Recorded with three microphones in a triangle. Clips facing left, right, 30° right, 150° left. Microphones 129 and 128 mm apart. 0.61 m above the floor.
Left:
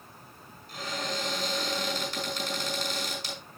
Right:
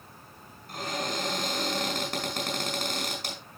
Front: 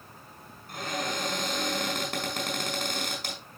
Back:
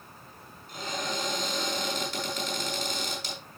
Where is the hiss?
No hiss in this recording.